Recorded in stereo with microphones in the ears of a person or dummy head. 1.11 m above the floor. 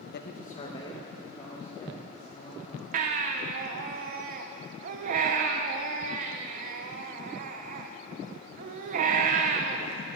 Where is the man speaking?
45° left (ahead or behind), 0.6 m; by 2.8 s 5° left (ahead or behind), 2.5 m.